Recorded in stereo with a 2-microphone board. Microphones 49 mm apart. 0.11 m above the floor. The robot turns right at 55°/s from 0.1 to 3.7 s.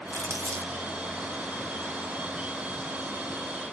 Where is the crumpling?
80° right, 5 m; by 0.7 s 55° right (ahead or behind), 5 m.